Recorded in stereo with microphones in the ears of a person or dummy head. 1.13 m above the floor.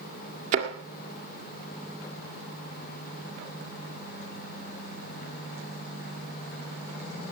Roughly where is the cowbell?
No cowbell in this recording.